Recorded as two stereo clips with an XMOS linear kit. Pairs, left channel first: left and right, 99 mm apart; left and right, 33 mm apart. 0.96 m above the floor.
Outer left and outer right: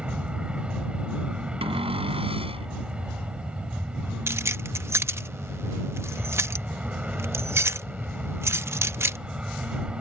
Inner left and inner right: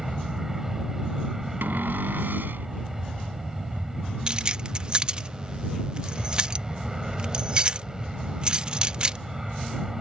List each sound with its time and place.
0.0 s an aircraft: 10° right (ahead or behind)
1.6 s a cupboard door: 70° right (ahead or behind)
4.3 s keys jangling: 25° right (ahead or behind)